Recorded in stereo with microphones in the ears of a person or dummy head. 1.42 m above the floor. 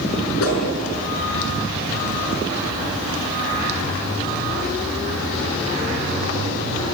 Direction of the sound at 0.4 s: 75° left (ahead or behind).